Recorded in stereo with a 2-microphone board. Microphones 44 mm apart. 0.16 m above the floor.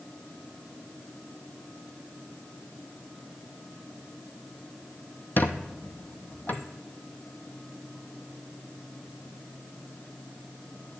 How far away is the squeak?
About 0.7 m.